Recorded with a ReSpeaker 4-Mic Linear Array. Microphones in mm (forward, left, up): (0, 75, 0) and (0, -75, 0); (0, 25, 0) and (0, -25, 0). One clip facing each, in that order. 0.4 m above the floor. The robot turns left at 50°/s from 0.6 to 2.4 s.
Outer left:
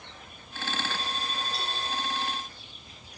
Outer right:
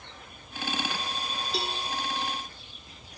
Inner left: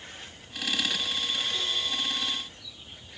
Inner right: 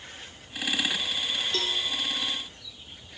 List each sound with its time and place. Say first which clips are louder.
1.5 s a cowbell: outer right 3 dB, inner right 2 dB; 85° right, 1.6 m; by 1.8 s 75° right (ahead or behind), 1.6 m